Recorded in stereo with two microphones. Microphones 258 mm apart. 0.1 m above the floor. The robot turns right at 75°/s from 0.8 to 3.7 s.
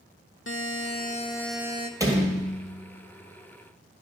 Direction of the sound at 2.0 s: 10° right (ahead or behind).